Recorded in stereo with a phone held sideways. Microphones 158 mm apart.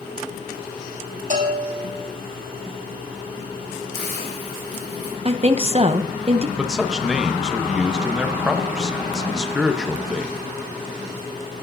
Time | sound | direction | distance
1.3 | a bell | 55° right (ahead or behind) | 5 m
3.9 | a hiss | 45° right (ahead or behind) | 4 m
5.2 | a woman speaking | 40° right (ahead or behind) | 0.5 m
6.6 | a man speaking | 5° right (ahead or behind) | 1.0 m